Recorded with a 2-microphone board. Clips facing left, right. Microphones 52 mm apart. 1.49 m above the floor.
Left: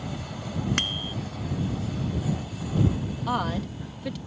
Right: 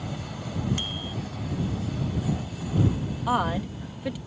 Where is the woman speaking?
10° right (ahead or behind).